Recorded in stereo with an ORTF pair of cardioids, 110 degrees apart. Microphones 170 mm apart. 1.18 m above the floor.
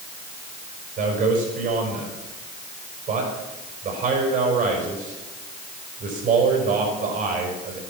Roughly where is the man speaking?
Ahead right.